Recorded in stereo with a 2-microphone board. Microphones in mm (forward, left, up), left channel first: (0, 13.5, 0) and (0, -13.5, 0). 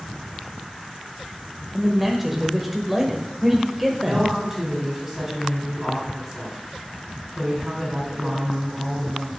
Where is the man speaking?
5° right (ahead or behind), 0.8 m.